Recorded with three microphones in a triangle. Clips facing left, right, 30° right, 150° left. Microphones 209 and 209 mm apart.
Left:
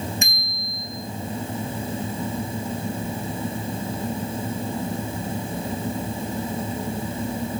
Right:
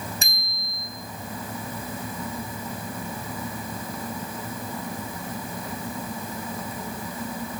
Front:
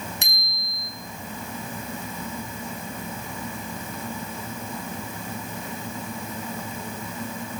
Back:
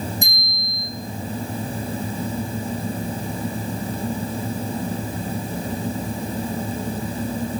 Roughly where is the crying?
No crying in this recording.